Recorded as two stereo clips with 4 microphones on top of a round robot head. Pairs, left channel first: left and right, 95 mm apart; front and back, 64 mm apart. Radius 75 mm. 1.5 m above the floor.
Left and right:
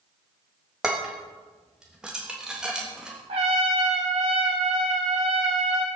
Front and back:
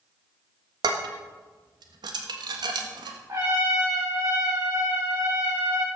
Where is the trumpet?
120° right, 5.5 m.